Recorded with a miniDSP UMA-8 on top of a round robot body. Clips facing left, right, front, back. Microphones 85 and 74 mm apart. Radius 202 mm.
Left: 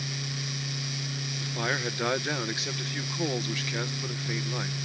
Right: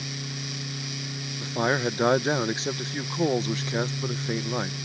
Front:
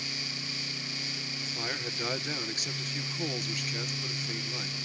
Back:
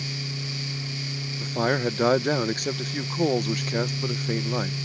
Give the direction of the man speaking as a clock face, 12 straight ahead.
5 o'clock.